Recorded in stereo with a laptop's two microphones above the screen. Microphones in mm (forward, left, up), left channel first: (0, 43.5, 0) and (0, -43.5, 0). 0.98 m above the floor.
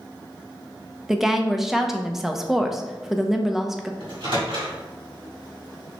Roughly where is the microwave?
Right.